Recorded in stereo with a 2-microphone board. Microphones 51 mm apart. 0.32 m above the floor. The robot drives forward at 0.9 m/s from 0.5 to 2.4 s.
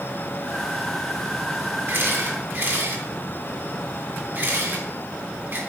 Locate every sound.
1.9 s a camera shutter: 45° right (ahead or behind), 2.5 m; by 5.6 s 40° right (ahead or behind), 3 m